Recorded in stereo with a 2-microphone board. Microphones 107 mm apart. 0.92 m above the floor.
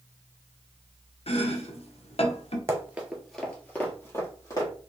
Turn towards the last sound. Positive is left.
turn(degrees=30)  # may be behind; listen again after turning